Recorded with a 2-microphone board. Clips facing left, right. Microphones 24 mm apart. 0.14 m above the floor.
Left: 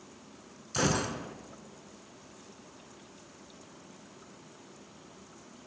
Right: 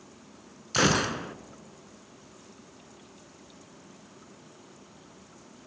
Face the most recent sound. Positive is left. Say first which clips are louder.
# right 6 dB
turn(degrees=-45)  # may be behind; listen again after turning